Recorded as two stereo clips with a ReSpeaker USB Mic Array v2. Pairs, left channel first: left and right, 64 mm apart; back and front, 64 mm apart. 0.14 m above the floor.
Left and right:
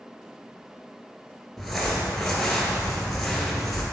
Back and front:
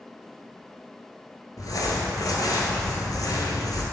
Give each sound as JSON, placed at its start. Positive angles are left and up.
{"t": 1.6, "sound": "crumpling", "azimuth_deg": 180, "distance_m": 1.4}